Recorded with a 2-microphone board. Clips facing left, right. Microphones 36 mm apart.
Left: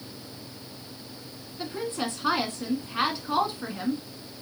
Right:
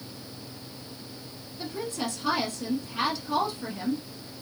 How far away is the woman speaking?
About 1.2 m.